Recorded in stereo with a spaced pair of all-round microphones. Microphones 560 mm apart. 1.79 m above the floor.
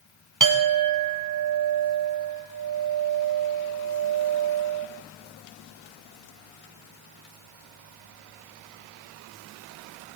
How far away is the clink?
About 0.7 m.